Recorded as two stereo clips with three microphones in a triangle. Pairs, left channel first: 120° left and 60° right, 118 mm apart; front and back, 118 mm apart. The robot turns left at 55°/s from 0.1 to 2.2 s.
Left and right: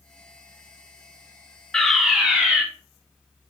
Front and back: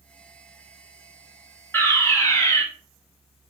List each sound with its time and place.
1.7 s a fire alarm: 45° left, 1.4 m; by 2.6 s 20° left, 1.4 m